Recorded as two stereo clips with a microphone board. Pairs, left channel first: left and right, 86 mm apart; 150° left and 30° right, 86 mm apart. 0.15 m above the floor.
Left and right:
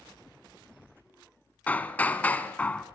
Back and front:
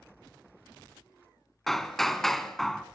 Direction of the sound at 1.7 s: 70° left.